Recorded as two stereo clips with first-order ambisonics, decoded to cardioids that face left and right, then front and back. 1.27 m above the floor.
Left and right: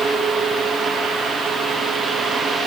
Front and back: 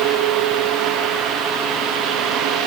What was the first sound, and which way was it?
Only background noise.